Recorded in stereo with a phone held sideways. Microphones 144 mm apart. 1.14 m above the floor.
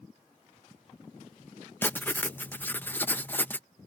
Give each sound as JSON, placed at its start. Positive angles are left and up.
{"t": 1.8, "sound": "writing", "side_deg": 15}